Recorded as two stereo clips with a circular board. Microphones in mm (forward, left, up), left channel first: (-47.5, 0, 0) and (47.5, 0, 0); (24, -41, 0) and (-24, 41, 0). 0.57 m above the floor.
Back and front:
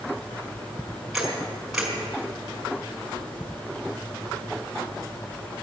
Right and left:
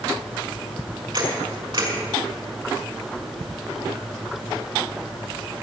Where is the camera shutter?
85° left, 5 m.